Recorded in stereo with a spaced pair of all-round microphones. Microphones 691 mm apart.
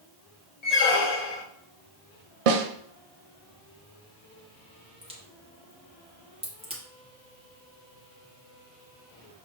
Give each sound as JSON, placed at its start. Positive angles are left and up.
{"t": 0.6, "sound": "a squeak", "side_deg": 65, "distance_m": 0.7}
{"t": 2.5, "sound": "a snare drum", "side_deg": -60, "distance_m": 0.6}
{"t": 5.0, "sound": "a crack", "side_deg": -10, "distance_m": 0.9}